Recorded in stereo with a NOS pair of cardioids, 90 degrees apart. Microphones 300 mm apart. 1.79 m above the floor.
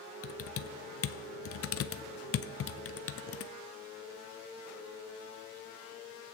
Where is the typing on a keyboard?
50° left, 0.7 m.